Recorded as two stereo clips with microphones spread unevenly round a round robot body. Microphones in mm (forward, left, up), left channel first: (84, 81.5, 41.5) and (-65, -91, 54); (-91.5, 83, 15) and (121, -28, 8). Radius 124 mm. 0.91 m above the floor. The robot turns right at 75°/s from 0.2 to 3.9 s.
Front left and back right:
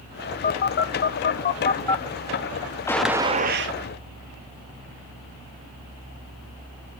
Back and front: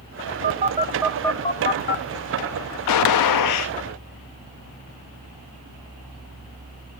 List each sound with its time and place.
0.4 s a phone buzzing: 10° left, 0.7 m; by 2.0 s 130° left, 0.7 m
2.9 s a gunshot: 130° left, 0.5 m; by 3.7 s 165° right, 0.5 m